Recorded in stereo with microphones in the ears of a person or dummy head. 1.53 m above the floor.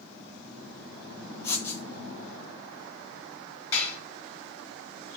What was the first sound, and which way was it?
Writing, 10° left (ahead or behind).